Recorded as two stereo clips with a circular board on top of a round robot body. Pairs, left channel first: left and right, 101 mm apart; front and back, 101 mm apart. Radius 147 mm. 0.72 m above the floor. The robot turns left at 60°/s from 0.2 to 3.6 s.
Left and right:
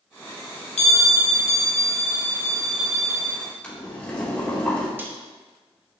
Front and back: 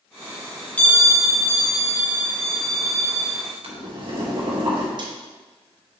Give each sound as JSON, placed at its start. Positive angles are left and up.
{"t": 0.8, "sound": "a bell", "azimuth_deg": 75, "distance_m": 0.8}
{"t": 3.6, "sound": "boiling", "azimuth_deg": 165, "distance_m": 2.5}
{"t": 5.0, "sound": "a snare drum", "azimuth_deg": -155, "distance_m": 1.6}